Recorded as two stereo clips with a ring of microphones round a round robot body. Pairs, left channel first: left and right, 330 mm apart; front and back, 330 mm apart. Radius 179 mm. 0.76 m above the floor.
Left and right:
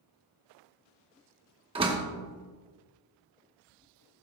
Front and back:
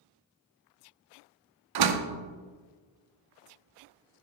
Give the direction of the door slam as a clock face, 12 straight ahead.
6 o'clock.